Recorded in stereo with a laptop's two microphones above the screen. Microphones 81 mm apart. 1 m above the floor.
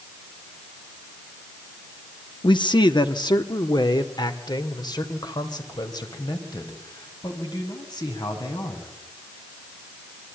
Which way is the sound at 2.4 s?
70° left (ahead or behind).